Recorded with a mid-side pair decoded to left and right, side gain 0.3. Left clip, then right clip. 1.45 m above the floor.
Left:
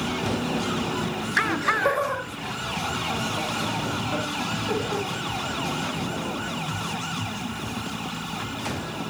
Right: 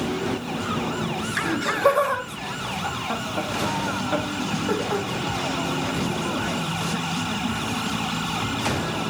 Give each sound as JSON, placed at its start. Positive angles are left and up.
{"t": 1.4, "sound": "laughter", "azimuth_deg": -55, "distance_m": 3.0}